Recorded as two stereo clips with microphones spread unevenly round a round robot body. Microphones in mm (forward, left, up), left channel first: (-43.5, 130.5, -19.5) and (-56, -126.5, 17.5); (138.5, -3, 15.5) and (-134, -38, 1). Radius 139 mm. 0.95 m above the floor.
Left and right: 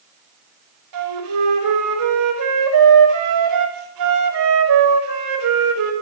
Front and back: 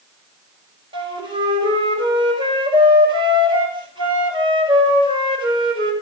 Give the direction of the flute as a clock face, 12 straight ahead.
3 o'clock.